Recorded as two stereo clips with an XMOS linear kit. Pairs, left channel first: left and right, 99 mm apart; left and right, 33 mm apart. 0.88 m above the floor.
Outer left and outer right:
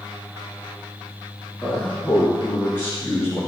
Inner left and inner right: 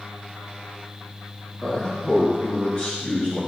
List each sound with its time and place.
1.6 s a man speaking: 15° left (ahead or behind), 2.5 m; by 3.4 s 30° left (ahead or behind), 4.5 m